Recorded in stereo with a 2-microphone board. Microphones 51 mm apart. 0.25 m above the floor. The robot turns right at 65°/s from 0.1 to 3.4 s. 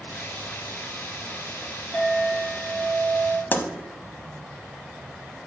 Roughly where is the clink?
Behind.